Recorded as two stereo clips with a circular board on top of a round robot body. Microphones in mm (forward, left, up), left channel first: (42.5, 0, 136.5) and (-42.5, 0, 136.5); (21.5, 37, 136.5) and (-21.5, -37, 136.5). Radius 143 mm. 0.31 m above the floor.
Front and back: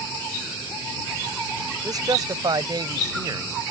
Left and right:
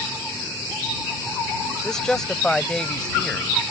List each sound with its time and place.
1.8 s a man speaking: 145° left; by 3.6 s 140° left